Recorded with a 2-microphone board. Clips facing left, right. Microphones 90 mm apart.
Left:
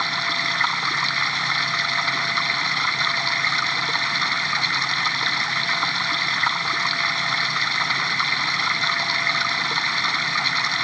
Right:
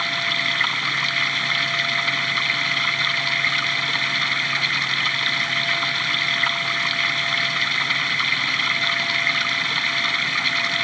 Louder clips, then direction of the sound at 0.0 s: Left 1 dB; 20° left (ahead or behind).